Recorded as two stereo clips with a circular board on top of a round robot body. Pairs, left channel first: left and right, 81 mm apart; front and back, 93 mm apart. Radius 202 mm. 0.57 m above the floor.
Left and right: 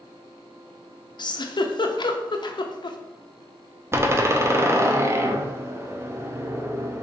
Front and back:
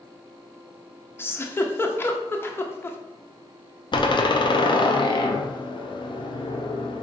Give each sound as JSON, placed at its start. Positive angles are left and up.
{"t": 1.2, "sound": "a giggle", "azimuth_deg": 65, "distance_m": 0.5}
{"t": 3.9, "sound": "a door slam", "azimuth_deg": -30, "distance_m": 0.6}